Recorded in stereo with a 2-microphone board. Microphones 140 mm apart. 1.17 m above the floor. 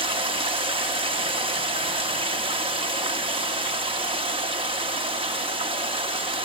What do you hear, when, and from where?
0.0 s running water: 40° right (ahead or behind), 1.0 m